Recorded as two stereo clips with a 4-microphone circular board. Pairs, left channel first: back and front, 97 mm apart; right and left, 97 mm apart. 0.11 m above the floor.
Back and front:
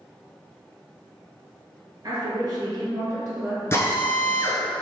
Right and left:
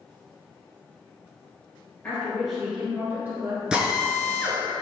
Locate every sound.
2.0 s a woman speaking: 25° right, 1.5 m; by 4.5 s 75° left, 1.9 m
3.7 s a drill: 165° left, 0.9 m